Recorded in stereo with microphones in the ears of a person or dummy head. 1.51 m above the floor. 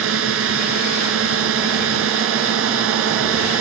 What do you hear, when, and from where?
0.0 s a drone: 85° right